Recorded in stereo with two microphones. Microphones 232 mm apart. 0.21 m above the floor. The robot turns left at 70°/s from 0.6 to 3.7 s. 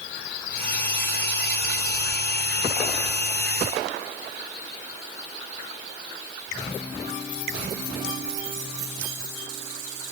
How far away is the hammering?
No hammering in this recording.